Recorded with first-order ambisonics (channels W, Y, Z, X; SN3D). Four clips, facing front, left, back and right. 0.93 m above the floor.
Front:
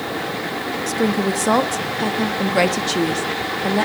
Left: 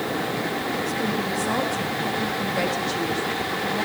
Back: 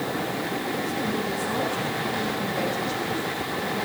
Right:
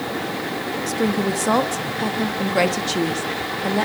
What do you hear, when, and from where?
0.9 s a woman speaking: 30° right, 1.4 m